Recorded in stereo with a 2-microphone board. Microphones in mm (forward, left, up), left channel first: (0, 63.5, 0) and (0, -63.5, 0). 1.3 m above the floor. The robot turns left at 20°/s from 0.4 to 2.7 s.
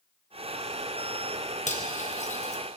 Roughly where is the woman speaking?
I don't hear a woman speaking.